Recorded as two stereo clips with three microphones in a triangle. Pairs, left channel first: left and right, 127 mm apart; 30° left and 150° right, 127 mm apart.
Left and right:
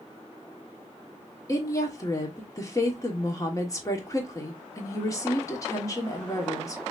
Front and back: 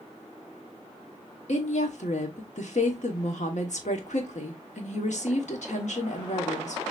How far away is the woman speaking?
About 1.3 m.